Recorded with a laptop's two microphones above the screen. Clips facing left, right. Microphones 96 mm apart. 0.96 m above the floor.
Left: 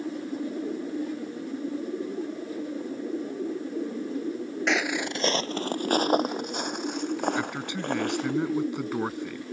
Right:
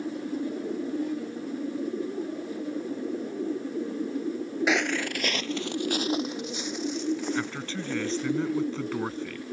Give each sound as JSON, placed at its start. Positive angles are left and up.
{"t": 4.7, "sound": "footsteps", "side_deg": -5}
{"t": 7.3, "sound": "a man speaking", "side_deg": 15}